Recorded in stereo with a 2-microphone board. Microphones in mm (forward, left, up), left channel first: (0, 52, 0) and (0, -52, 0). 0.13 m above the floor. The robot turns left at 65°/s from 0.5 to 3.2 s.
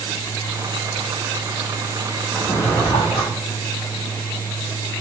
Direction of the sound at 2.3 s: 175° left.